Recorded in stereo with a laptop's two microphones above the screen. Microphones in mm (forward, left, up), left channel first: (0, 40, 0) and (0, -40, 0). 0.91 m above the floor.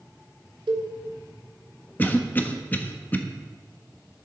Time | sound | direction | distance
0.7 | a cowbell | 85° right | 1.2 m
2.0 | a cough | 25° left (ahead or behind) | 1.1 m